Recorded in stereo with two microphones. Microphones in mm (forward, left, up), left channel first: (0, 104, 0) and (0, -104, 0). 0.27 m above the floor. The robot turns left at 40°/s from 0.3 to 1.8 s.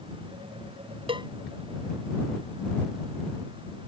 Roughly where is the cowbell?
Right.